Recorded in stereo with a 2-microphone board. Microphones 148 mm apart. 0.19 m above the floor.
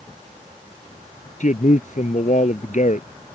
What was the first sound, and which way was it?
A man speaking, 60° left (ahead or behind).